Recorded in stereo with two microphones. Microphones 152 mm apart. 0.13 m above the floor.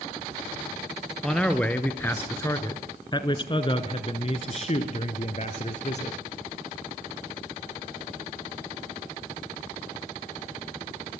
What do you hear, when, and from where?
1.2 s a man speaking: 5° left (ahead or behind), 2.5 m; by 6.2 s 50° left (ahead or behind), 3 m